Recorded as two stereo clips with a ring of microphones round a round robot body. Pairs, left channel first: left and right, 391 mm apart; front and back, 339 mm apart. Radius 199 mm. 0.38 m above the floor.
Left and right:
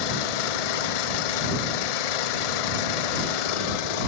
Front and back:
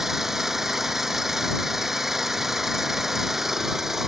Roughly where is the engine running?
Left.